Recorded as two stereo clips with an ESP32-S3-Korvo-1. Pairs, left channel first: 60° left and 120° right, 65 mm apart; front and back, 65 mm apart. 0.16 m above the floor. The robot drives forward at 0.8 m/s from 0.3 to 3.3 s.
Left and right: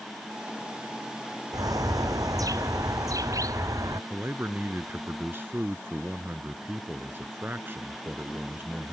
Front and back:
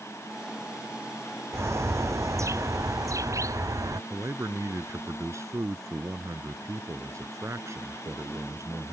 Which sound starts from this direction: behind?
A man speaking, at 4.1 s.